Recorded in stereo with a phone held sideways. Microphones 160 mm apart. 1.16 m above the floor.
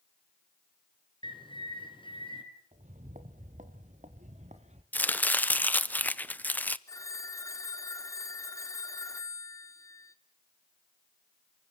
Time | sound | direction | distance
1.2 | a bird | 30° left (ahead or behind) | 3.5 m
2.7 | footsteps | 50° right (ahead or behind) | 1.7 m
4.9 | chopping | 10° left (ahead or behind) | 0.7 m
6.9 | a phone ringing | 20° left (ahead or behind) | 1.5 m